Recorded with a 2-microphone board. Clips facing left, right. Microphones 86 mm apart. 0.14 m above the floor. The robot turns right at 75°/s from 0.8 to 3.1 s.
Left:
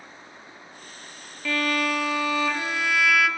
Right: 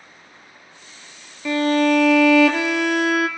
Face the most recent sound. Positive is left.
turn(degrees=-40)